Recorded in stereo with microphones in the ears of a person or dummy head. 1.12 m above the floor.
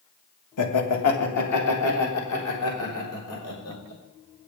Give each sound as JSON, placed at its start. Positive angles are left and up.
{"t": 0.6, "sound": "laughter", "side_deg": 75, "distance_m": 1.4}